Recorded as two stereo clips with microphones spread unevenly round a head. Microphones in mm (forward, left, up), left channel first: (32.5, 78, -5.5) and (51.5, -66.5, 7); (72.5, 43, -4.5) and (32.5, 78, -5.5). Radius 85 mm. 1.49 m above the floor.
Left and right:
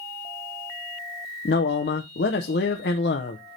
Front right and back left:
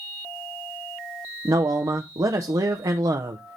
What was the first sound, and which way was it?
A man speaking, 125° left.